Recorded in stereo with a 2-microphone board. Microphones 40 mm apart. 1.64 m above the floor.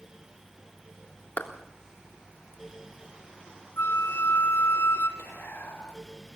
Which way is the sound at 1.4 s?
55° left (ahead or behind).